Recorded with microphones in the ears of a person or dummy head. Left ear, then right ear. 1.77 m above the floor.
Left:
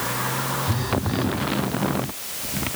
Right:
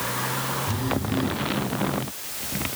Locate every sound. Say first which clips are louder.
0.7 s a phone buzzing: left 2 dB; 55° left (ahead or behind), 1.6 m